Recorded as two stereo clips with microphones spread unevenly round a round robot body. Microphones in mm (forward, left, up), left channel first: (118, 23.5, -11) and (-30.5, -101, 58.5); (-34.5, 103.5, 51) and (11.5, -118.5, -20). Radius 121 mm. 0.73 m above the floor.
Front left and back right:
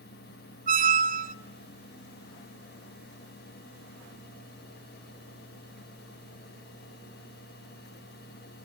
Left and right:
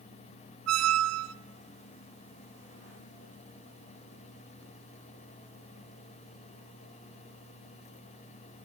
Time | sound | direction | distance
0.7 | a squeak | 85° right | 0.6 m